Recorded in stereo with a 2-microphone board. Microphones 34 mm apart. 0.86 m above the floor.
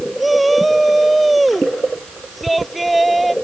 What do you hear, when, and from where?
0.2 s a shout: centre (ahead or behind)